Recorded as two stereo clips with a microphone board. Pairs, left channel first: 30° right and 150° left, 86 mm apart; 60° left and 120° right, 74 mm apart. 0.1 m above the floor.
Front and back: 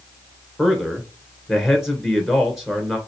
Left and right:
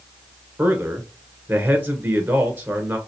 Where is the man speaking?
125° right, 1.4 m.